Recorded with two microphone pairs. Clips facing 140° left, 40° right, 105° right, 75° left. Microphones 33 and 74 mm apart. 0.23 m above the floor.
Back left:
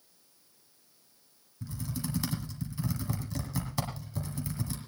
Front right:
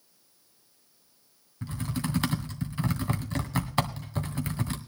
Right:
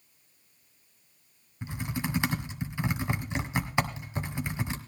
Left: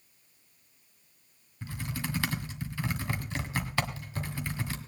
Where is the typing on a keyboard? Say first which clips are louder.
Front right 5 dB, right 3 dB; 45° right, 1.9 m.